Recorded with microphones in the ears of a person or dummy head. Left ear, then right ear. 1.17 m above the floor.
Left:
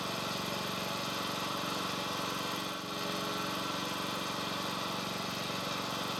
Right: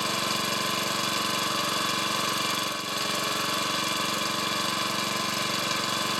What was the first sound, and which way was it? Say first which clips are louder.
An engine running: right 9 dB; 55° right (ahead or behind).